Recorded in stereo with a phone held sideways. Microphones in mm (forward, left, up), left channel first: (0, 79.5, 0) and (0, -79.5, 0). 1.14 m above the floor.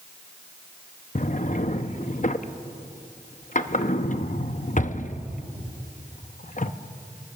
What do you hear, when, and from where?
1.1 s a drawer: 50° left (ahead or behind), 0.8 m